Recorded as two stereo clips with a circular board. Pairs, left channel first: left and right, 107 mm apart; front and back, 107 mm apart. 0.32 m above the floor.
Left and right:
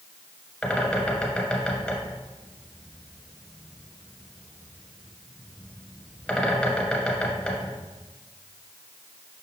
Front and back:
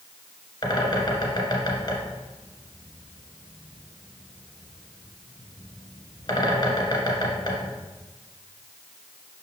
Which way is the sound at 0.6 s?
10° left.